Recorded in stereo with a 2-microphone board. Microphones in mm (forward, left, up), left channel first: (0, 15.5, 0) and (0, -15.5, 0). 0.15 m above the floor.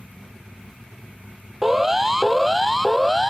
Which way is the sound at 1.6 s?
15° right (ahead or behind).